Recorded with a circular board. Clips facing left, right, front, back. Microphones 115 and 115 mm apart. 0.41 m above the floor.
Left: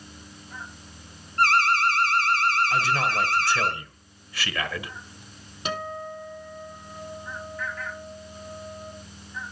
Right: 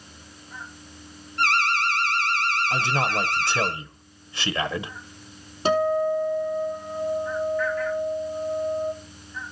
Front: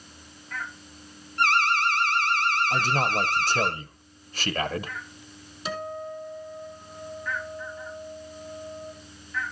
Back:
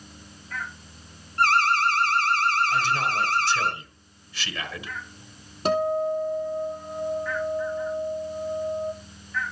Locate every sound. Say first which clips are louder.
1.4 s an alarm: left 3 dB, back 2 dB; 135° left, 3.5 m
2.7 s a man speaking: even, even; 30° right, 1.3 m
5.7 s a guitar: right 12 dB, back 11 dB; 145° right, 2.5 m